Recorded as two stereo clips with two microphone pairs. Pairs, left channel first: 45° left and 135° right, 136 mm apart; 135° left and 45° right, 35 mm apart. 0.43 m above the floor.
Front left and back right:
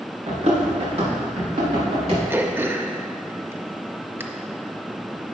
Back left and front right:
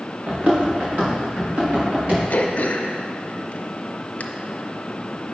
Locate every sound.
0.3 s running footsteps: 95° right, 2.5 m; by 2.2 s 90° right, 5.5 m
2.3 s throat clearing: 155° left, 0.6 m